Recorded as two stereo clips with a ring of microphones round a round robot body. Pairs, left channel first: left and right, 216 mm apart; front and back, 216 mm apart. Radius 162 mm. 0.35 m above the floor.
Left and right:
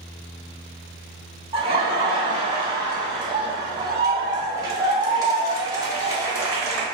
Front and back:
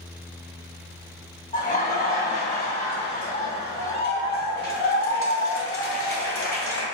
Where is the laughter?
35° right, 1.8 m; by 6.8 s 15° right, 4 m.